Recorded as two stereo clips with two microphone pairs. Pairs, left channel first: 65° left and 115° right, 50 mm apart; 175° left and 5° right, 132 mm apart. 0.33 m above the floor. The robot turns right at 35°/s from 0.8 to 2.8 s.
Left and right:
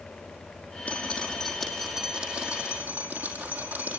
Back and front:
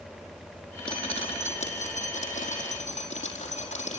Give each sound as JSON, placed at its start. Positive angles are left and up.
{"t": 0.9, "sound": "dripping", "azimuth_deg": 135, "distance_m": 4.5}